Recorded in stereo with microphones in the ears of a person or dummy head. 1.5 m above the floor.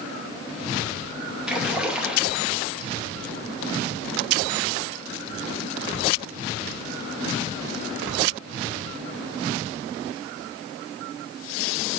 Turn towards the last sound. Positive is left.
turn(degrees=-5)  # may be behind; listen again after turning